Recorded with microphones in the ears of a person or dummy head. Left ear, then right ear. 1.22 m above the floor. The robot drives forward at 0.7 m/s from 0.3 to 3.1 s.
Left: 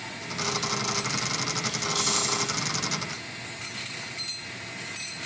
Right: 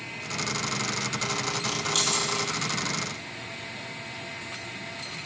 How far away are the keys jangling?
About 0.9 m.